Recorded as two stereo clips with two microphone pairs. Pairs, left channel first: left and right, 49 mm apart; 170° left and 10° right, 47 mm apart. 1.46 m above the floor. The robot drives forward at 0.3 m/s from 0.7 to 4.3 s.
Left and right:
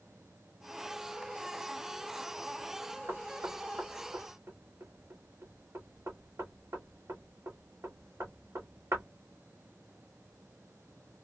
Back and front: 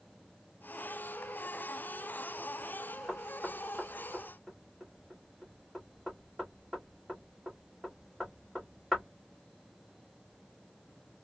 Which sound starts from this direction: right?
Knocking, at 3.1 s.